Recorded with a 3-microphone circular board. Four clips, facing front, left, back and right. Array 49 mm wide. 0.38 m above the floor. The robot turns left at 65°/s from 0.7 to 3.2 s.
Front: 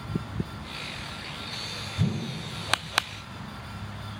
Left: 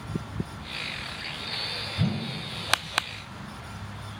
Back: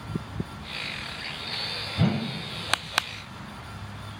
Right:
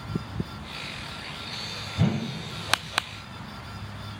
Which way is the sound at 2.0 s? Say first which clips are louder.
Right 4 dB, back 4 dB; 155° right.